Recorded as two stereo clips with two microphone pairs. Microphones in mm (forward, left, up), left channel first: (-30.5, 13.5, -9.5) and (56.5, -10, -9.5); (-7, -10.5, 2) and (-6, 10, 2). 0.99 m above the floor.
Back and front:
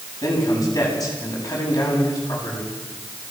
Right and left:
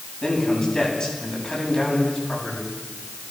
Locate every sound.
0.2 s a man speaking: 145° right, 9 m